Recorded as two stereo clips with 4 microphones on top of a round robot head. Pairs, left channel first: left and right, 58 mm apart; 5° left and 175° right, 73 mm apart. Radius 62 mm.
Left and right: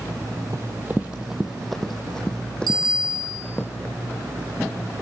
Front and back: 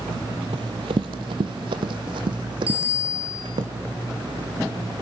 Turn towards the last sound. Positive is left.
turn(degrees=-100)